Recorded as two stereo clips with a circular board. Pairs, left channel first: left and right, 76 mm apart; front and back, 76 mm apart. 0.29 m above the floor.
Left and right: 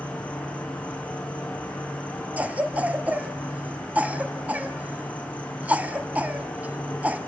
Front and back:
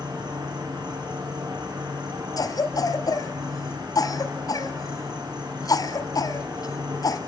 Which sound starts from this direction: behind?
An insect, at 0.0 s.